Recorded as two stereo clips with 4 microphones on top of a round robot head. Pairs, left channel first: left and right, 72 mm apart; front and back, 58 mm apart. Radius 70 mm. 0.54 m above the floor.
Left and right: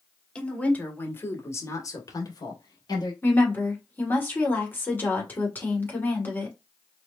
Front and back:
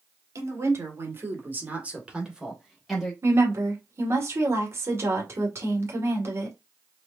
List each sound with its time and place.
0.3 s a woman speaking: 165° left, 2.5 m; by 3.1 s 90° left, 3 m
3.2 s a woman speaking: 150° left, 2 m